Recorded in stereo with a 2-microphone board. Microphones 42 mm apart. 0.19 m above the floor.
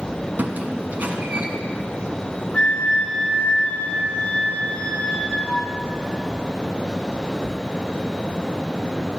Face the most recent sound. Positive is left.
turn(degrees=35)  # may be behind; listen again after turning